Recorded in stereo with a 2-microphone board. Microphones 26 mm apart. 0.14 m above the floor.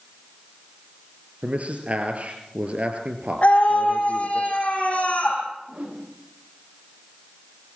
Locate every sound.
1.4 s a man speaking: 60° right (ahead or behind), 3.5 m
3.4 s a scream: 40° left (ahead or behind), 7 m
5.7 s a whoosh: 50° right (ahead or behind), 6.5 m